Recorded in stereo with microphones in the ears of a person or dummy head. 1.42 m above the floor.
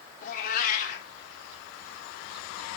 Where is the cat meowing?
45° left (ahead or behind), 2 m.